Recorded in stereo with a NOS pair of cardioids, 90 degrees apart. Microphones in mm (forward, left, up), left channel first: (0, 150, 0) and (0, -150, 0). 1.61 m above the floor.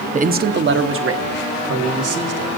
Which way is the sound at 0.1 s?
25° right.